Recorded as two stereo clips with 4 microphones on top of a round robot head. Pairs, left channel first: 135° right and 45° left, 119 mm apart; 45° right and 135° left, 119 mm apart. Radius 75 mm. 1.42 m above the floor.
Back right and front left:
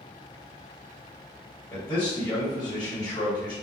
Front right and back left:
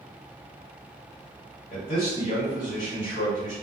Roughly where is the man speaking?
Right.